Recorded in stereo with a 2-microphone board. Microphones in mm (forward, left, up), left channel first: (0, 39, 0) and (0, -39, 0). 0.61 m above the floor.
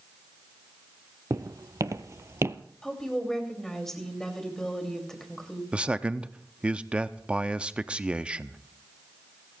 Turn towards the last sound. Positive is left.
turn(degrees=-15)  # may be behind; listen again after turning